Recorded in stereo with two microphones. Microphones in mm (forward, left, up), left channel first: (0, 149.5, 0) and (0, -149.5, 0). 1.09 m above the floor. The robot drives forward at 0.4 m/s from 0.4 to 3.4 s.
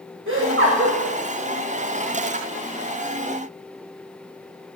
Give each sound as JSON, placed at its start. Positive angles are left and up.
{"t": 0.3, "sound": "laughter", "side_deg": -45, "distance_m": 1.3}